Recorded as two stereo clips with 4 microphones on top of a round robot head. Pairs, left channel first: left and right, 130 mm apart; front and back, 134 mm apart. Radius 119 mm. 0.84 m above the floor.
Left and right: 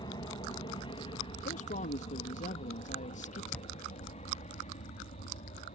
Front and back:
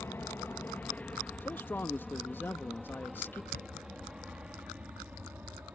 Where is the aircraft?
65° left; by 5.8 s 105° left.